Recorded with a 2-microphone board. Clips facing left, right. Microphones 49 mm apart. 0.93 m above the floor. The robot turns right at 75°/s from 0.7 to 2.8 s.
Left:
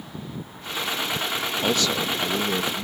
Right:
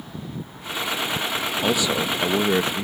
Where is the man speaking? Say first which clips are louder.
Right 2 dB; 175° right; by 2.9 s 85° right.